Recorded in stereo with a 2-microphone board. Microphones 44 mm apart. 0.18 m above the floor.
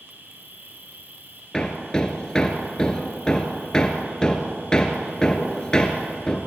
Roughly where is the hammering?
Centre.